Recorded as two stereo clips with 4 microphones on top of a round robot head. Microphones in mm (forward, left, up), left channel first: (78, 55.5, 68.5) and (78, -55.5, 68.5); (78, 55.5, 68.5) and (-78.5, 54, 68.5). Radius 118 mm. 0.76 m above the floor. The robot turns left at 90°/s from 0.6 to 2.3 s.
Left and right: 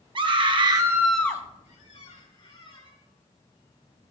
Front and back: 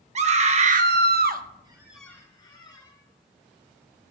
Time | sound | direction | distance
0.1 | a scream | 135° right | 1.1 m
1.6 | a squeak | 120° left | 4 m